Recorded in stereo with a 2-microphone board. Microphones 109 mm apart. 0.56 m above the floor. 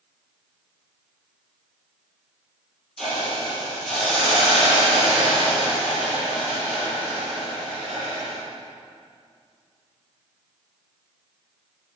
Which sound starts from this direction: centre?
A hiss, at 3.0 s.